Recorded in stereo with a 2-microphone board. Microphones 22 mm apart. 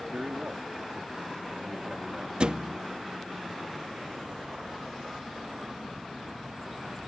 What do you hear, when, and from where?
0.1 s a man speaking: 45° right (ahead or behind)
2.4 s a thud: 40° right (ahead or behind)